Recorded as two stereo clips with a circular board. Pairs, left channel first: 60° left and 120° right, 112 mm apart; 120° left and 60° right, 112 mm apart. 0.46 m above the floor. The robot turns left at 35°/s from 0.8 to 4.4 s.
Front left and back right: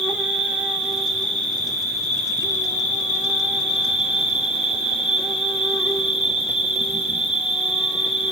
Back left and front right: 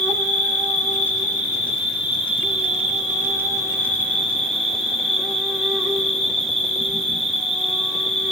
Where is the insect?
160° left, 1.2 m; by 8.3 s 35° left, 1.2 m.